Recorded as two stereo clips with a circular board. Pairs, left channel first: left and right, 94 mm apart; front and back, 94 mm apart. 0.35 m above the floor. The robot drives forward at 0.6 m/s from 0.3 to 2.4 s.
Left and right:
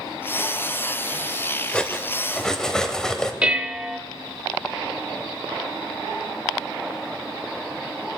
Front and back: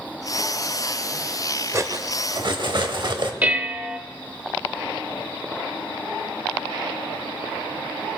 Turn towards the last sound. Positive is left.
turn(degrees=-140)